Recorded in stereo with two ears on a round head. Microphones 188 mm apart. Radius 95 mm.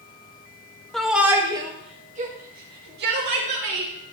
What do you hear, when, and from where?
0.9 s a shout: centre (ahead or behind), 1.6 m; by 3.9 s 65° right (ahead or behind), 3 m